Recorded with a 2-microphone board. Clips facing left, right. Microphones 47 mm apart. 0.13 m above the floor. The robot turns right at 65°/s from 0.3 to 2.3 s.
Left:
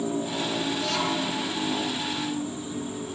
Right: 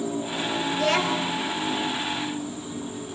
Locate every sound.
0.7 s a child speaking: 80° right, 2 m; by 1.4 s 35° right, 2 m